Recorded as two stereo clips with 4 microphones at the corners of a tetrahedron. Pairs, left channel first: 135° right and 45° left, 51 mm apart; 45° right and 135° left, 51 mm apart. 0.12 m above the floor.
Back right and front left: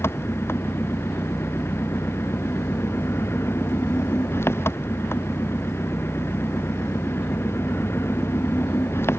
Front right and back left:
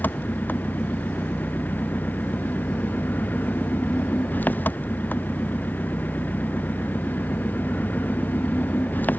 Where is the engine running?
95° right.